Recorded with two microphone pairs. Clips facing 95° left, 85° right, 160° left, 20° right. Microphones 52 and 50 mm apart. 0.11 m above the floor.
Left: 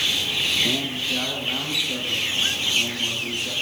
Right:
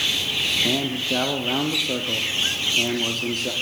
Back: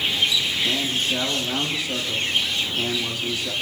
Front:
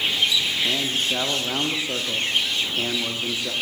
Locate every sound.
0.6 s a man speaking: 90° right, 5 m